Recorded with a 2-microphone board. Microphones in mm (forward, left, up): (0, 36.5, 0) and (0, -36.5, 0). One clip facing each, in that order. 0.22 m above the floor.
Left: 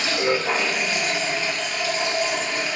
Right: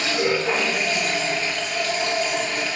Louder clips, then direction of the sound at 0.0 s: Right 1 dB; 15° left (ahead or behind).